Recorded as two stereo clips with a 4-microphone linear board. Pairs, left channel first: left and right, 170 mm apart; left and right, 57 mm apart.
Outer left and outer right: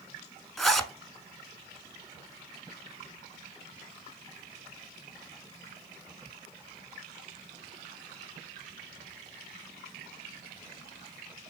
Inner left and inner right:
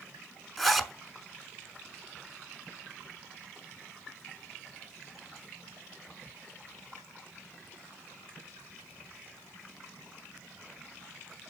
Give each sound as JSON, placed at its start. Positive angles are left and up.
{"t": 0.6, "sound": "a zipper", "side_deg": 0, "distance_m": 0.8}